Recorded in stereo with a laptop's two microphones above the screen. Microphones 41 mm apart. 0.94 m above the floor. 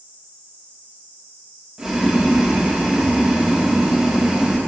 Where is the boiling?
10° right (ahead or behind), 1.4 m.